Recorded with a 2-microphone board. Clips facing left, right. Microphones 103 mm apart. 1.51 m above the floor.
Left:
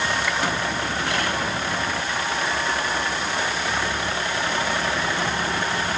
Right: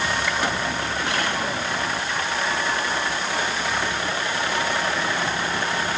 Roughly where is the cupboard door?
No cupboard door in this recording.